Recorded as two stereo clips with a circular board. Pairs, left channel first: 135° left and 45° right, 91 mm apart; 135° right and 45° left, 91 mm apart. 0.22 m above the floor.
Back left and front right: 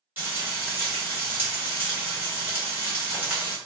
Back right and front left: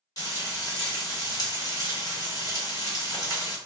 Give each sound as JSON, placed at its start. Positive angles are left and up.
{"t": 0.2, "sound": "frying", "azimuth_deg": -105, "distance_m": 1.4}